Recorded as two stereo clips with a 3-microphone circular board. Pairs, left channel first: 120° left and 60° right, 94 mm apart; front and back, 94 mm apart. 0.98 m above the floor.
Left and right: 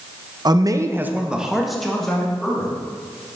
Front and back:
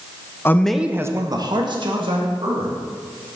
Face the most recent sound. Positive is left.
turn(degrees=-160)